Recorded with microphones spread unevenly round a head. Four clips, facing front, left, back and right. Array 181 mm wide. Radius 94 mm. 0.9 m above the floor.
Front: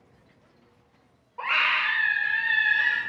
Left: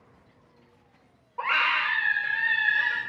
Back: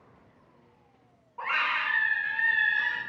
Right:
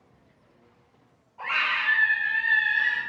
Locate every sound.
1.4 s a scream: 75° left, 3.5 m